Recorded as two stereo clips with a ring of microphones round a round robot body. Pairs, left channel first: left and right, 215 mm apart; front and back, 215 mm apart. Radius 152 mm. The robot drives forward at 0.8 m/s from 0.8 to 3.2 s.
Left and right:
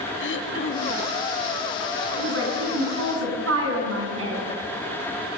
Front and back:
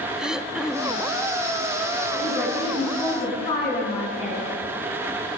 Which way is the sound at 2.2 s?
70° right.